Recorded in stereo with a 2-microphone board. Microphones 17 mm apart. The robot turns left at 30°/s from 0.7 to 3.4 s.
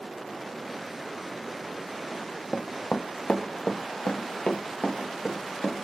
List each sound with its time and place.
2.1 s running footsteps: 25° left (ahead or behind), 0.6 m; by 5.8 s 80° left, 1.7 m